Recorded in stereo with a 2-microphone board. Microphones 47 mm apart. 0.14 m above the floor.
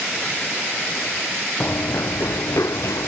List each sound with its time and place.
1.6 s running footsteps: 40° left (ahead or behind); by 3.1 s 85° left